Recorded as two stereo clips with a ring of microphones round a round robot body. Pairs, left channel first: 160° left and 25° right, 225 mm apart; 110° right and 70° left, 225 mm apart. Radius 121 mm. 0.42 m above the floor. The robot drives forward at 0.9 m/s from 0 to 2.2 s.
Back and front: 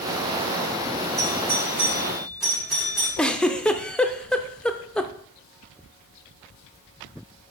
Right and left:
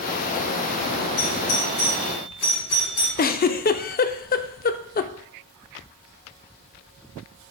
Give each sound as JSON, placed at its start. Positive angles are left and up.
{"t": 1.2, "sound": "a doorbell", "azimuth_deg": -100, "distance_m": 3.5}
{"t": 3.2, "sound": "a giggle", "azimuth_deg": -120, "distance_m": 0.6}